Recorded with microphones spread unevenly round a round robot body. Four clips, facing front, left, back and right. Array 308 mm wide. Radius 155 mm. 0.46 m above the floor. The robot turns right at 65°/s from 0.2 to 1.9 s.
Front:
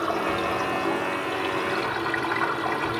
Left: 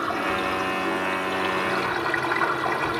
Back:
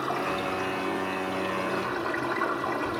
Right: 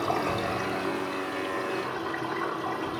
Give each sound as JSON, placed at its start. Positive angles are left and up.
{"t": 0.0, "sound": "running water", "azimuth_deg": -50, "distance_m": 2.5}